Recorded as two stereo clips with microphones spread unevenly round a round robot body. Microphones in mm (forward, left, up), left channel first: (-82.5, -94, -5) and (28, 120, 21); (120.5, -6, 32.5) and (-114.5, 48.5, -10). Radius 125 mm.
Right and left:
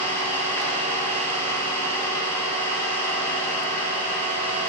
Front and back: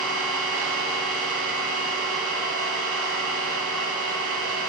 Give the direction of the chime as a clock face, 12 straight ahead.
I don't hear a chime.